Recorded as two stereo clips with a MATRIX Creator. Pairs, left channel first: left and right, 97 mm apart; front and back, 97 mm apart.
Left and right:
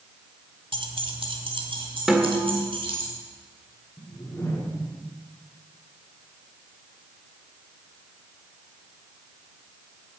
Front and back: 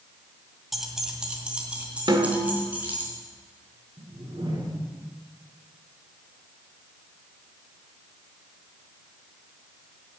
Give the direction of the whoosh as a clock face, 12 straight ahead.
7 o'clock.